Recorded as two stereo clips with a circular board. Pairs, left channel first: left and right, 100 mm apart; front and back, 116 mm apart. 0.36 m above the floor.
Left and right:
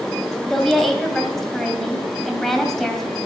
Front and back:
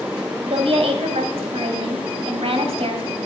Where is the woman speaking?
175° left, 2.5 m.